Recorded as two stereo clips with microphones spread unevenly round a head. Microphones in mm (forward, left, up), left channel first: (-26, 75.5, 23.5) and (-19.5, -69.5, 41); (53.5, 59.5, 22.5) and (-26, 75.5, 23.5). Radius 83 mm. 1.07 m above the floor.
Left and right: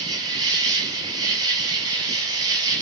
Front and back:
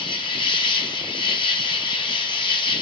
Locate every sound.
0.0 s an insect: 20° right, 0.8 m